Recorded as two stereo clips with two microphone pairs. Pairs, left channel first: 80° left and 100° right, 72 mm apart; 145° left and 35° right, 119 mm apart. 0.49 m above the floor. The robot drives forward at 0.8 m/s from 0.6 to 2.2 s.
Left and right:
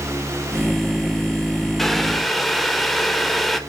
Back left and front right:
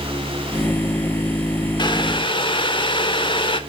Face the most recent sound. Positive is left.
turn(degrees=170)